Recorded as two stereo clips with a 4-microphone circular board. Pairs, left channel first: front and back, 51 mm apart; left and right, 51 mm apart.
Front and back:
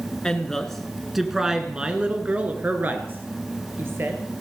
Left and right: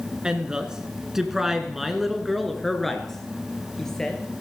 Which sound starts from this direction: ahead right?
A woman speaking, at 0.2 s.